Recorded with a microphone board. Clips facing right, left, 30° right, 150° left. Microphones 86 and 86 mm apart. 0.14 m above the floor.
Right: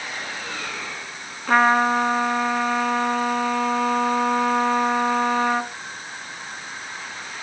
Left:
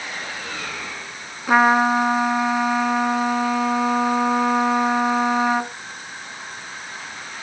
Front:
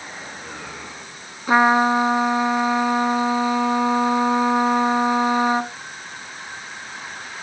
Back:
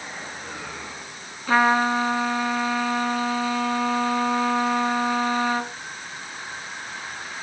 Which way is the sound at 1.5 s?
15° left.